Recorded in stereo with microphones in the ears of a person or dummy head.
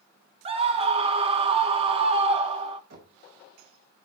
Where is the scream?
30° right (ahead or behind), 1.7 m.